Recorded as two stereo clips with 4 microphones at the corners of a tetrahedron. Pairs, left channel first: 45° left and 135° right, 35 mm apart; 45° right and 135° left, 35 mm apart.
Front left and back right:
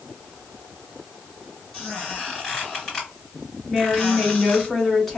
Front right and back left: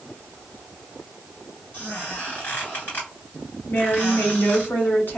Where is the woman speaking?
35° right, 1.8 m.